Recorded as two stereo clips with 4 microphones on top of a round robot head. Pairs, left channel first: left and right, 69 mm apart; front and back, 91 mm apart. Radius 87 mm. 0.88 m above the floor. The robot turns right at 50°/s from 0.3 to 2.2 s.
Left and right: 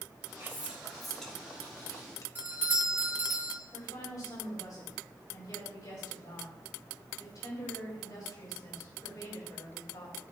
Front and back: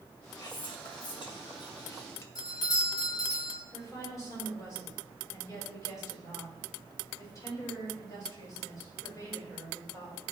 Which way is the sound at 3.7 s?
60° left.